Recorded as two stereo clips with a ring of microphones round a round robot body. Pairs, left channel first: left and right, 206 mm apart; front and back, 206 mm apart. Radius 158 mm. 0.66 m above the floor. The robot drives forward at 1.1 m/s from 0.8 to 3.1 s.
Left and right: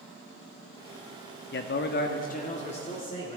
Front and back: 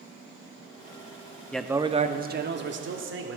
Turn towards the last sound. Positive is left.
turn(degrees=160)